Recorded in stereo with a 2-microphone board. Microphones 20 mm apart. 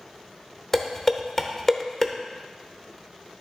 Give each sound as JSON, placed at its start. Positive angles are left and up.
{"t": 0.7, "sound": "dishes clattering", "side_deg": 20, "distance_m": 0.8}